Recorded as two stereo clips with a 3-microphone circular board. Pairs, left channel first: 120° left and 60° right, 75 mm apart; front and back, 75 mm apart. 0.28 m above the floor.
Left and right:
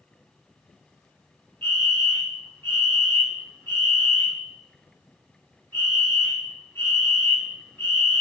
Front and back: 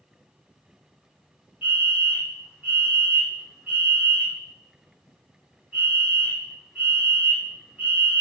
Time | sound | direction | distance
1.6 | a fire alarm | 135° left | 1.9 m